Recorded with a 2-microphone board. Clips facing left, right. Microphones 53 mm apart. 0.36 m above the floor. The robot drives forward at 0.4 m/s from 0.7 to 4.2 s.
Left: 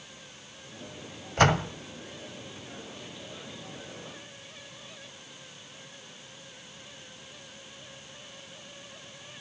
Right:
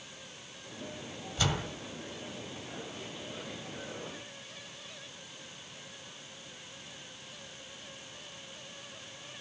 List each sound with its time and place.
1.4 s a door slam: 55° left (ahead or behind), 1.7 m